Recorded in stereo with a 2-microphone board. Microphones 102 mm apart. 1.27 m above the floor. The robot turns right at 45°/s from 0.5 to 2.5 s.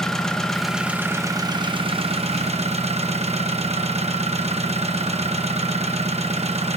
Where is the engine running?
175° left, 1.1 m; by 6.8 s 95° right, 1.1 m.